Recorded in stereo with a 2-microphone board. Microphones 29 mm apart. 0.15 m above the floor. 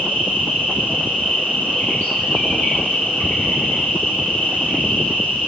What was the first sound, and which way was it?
An insect, 85° left.